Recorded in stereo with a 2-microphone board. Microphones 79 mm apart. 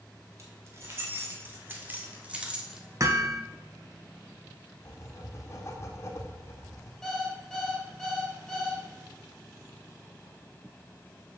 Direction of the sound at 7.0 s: 5° left (ahead or behind).